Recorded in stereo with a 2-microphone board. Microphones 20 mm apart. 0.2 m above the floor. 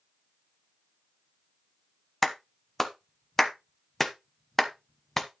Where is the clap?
15° left (ahead or behind), 1.0 m.